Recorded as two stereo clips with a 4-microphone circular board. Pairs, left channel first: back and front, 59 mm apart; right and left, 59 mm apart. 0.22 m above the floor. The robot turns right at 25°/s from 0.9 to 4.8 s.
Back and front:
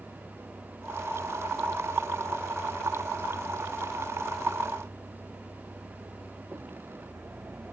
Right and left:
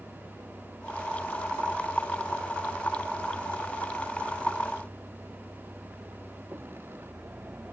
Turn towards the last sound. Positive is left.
turn(degrees=40)